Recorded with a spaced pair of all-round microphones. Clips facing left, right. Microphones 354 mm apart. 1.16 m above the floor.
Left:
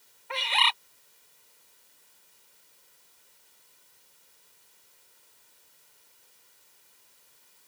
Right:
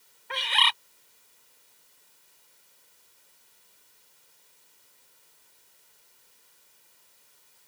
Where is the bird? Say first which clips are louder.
Left 1 dB; 25° right (ahead or behind).